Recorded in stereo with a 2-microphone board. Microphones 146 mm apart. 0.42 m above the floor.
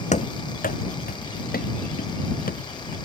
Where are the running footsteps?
50° left (ahead or behind); by 3.0 s 80° left.